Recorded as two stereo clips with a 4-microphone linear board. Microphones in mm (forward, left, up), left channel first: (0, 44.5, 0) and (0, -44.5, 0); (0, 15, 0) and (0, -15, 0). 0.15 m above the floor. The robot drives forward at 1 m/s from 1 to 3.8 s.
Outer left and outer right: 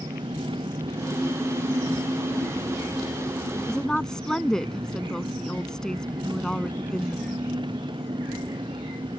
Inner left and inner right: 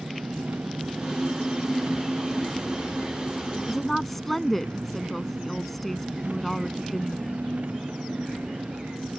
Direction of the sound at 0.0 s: 70° right (ahead or behind).